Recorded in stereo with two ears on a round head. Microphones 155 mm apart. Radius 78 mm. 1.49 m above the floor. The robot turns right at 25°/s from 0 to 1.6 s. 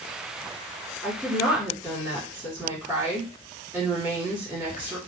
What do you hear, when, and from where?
1.0 s a woman speaking: 10° right (ahead or behind), 2.5 m; by 5.0 s 25° right (ahead or behind), 2.5 m